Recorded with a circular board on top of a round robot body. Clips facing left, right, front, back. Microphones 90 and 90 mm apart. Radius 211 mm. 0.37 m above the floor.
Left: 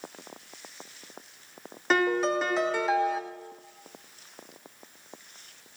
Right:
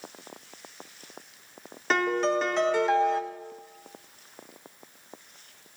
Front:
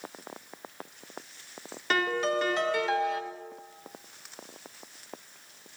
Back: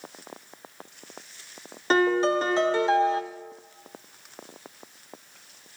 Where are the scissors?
I don't hear scissors.